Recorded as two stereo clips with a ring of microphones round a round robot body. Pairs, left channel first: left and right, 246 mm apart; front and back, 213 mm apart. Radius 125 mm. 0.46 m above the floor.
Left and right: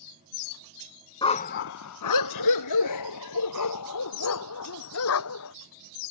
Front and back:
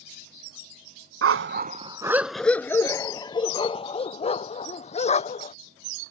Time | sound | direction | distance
1.2 | a dog barking | 165° left | ?